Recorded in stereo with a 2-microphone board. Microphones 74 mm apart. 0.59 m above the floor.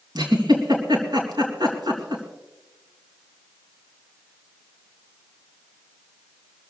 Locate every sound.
0.1 s a giggle: 80° right, 4 m